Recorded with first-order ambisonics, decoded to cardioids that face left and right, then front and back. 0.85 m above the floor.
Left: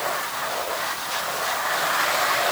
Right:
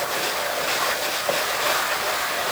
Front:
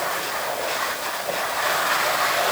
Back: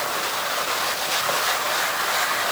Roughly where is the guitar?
No guitar in this recording.